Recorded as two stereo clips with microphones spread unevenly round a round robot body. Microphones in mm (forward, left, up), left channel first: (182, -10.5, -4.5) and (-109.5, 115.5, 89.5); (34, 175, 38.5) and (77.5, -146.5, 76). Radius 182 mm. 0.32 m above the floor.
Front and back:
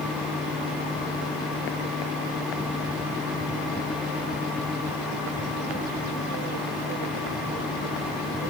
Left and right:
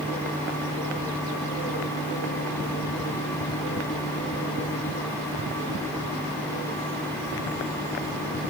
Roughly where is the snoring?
I don't hear snoring.